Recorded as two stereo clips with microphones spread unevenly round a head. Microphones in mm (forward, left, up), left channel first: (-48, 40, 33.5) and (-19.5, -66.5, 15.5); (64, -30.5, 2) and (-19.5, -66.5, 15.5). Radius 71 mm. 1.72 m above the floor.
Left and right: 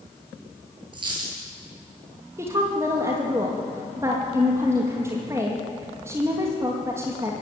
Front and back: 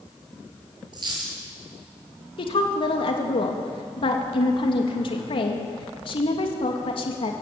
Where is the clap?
I don't hear a clap.